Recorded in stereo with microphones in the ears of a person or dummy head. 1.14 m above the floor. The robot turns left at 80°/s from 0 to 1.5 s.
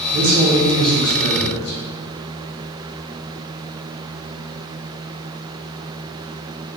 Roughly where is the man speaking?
Behind right.